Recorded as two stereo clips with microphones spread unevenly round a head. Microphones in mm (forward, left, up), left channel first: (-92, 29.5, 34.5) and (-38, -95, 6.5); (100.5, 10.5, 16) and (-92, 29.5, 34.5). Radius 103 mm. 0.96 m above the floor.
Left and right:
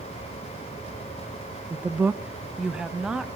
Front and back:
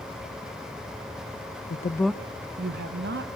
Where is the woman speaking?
5° left, 0.7 m; by 3.3 s 150° right, 2.0 m.